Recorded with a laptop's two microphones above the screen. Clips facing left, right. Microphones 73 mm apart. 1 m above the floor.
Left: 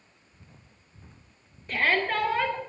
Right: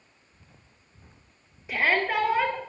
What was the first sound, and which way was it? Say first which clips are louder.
A shout: right 1 dB; 10° right (ahead or behind).